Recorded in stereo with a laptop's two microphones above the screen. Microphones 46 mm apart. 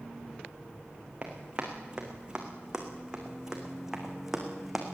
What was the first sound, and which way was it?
Running footsteps, 25° right (ahead or behind).